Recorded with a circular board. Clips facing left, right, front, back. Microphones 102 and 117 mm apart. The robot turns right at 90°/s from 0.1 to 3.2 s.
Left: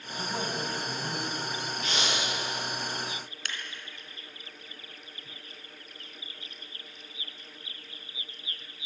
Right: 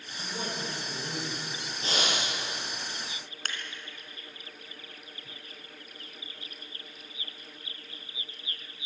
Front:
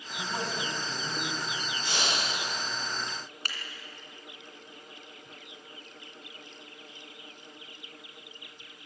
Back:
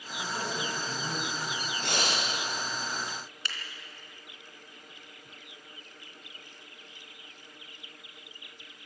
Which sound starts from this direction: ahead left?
A man speaking, at 0.2 s.